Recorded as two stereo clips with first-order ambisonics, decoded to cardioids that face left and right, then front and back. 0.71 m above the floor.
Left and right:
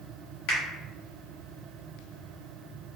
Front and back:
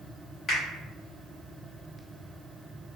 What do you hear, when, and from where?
0.5 s a finger snap: 75° left, 1.6 m